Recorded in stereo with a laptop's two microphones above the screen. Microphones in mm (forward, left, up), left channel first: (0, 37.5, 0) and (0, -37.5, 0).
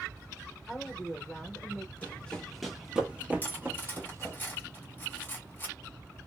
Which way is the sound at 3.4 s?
30° left (ahead or behind).